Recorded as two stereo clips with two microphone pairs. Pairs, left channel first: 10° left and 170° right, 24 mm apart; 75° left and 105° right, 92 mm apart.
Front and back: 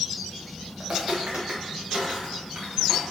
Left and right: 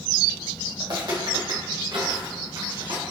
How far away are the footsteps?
About 1.7 m.